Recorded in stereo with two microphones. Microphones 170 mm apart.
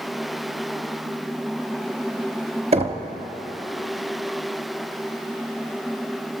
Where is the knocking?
35° right (ahead or behind), 0.9 m.